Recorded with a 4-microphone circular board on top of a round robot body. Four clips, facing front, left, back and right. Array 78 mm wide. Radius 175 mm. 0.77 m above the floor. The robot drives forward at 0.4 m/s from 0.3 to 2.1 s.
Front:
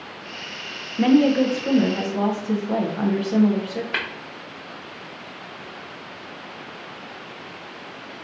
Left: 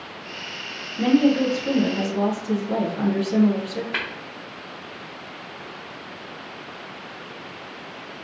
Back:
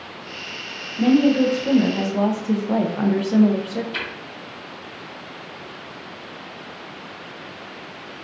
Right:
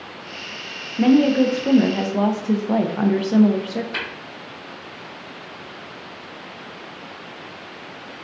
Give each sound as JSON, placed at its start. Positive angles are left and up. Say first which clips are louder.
{"t": 1.0, "sound": "a woman speaking", "louder": "right 3 dB, even", "azimuth_deg": -35, "distance_m": 0.7}
{"t": 3.9, "sound": "tapping", "louder": "left 4 dB, front 2 dB", "azimuth_deg": 25, "distance_m": 0.9}